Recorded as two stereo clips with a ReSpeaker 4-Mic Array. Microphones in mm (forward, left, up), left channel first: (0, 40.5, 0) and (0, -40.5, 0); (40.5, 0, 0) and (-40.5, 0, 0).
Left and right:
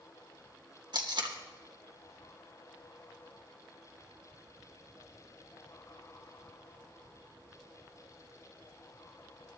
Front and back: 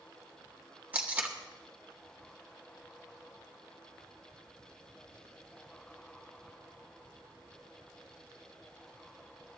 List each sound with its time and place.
0.9 s tape being pulled: 110° right, 1.6 m